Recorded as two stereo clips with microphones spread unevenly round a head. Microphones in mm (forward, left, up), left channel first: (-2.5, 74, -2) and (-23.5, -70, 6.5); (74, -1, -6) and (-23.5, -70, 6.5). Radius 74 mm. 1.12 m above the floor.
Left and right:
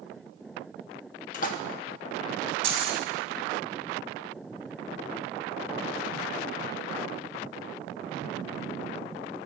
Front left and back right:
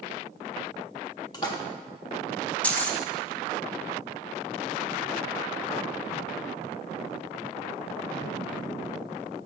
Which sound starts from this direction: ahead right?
Keys jangling, at 2.6 s.